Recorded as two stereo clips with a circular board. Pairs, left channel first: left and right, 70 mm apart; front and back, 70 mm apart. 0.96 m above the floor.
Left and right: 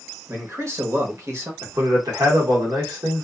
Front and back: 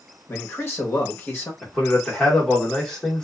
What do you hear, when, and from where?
0.3 s a man speaking: 50° right, 1.0 m
1.6 s a man speaking: 75° right, 1.3 m